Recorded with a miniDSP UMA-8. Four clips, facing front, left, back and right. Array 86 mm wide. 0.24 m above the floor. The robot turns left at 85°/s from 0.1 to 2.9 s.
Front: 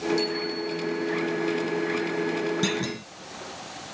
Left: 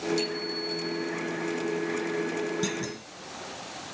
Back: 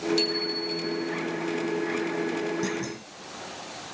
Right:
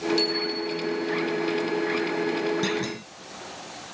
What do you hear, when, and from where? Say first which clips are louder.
0.2 s a bicycle bell: right 4 dB, front 1 dB; 155° right, 6.5 m; by 1.1 s 125° left, 6.5 m
2.6 s a clunk: right 4 dB, front 3 dB; 10° right, 1.4 m; by 3.1 s 35° right, 1.4 m